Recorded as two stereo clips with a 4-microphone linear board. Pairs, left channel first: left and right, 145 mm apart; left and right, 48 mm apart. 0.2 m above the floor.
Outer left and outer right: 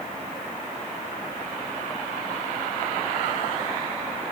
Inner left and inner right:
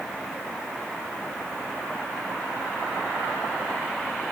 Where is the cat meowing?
I don't hear a cat meowing.